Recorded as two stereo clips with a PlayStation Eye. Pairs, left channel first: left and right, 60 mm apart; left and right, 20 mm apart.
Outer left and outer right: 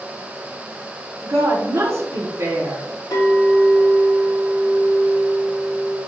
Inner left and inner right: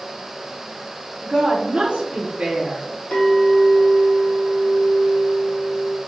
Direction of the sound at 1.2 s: 50° right (ahead or behind).